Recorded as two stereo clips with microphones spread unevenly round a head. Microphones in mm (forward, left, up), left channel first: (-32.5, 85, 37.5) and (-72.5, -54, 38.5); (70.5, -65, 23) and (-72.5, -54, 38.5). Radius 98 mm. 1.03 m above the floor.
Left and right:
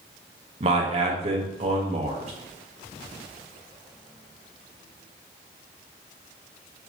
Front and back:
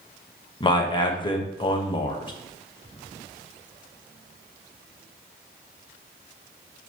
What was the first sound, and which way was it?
A man speaking, 60° right.